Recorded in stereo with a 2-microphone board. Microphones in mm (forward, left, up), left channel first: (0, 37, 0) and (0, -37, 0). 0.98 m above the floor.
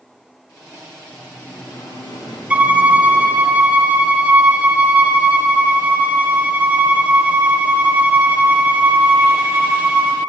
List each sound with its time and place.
1.1 s singing: 70° left (ahead or behind), 2 m
2.5 s a violin: 15° right (ahead or behind), 0.6 m